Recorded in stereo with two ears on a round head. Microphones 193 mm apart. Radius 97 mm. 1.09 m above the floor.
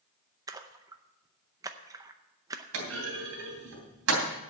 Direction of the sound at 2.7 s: 65° right (ahead or behind).